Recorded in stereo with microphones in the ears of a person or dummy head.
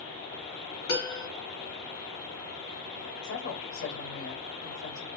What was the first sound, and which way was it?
A piano, 70° left (ahead or behind).